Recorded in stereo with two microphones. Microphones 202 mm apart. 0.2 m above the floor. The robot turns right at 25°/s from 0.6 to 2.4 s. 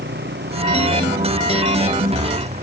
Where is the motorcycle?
80° right; by 2.6 s 35° right (ahead or behind).